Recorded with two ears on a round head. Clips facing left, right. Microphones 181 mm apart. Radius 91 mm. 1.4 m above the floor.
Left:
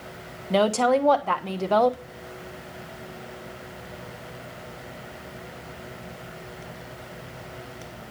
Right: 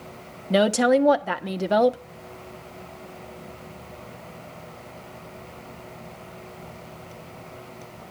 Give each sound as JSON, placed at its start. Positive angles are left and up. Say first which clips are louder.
{"t": 0.5, "sound": "a woman speaking", "louder": "right 2 dB", "side_deg": -15, "distance_m": 1.2}